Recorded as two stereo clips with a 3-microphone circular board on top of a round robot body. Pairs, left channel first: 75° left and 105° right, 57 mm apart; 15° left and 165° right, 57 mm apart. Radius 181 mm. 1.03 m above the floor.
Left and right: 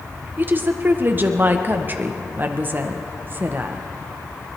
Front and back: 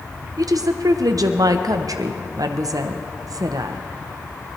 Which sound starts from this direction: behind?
A woman speaking, at 0.4 s.